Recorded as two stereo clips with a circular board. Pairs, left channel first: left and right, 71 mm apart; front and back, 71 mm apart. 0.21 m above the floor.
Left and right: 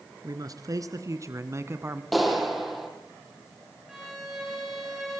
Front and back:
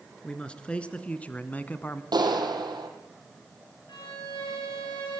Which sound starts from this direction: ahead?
A violin, at 3.9 s.